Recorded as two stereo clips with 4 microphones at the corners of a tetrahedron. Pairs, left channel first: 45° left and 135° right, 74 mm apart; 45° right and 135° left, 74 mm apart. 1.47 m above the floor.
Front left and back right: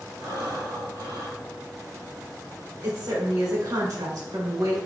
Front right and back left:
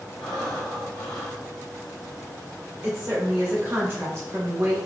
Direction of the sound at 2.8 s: 165° right.